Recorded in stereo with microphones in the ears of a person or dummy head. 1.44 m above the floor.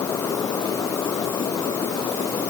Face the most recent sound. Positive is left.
No sound to turn to.